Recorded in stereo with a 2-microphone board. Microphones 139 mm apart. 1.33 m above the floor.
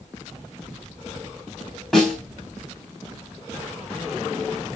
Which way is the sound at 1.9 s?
5° left (ahead or behind).